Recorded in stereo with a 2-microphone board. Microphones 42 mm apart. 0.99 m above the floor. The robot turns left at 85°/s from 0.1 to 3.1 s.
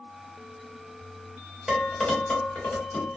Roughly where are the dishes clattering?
Centre.